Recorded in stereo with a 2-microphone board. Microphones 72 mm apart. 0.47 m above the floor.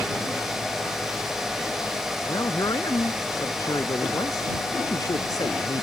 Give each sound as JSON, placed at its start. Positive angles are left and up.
{"t": 2.3, "sound": "a man speaking", "side_deg": 60}